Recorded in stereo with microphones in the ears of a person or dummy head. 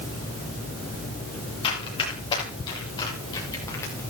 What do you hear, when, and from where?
1.6 s running footsteps: 25° left (ahead or behind), 8.5 m; by 4.0 s 15° left (ahead or behind), 8 m